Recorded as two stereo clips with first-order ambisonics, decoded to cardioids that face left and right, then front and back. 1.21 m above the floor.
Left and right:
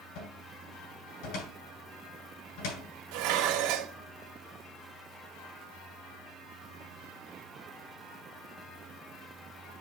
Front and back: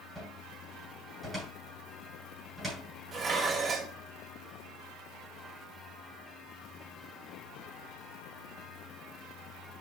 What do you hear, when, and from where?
0.1 s a cupboard door: 95° left, 7.5 m
3.1 s dishes clattering: 115° right, 2.0 m